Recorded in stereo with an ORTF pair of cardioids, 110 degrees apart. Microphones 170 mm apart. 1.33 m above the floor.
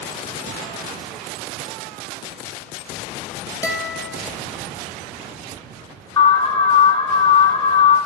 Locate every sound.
3.6 s a guitar: 15° left, 1.1 m
6.2 s an alarm: 25° left, 2.5 m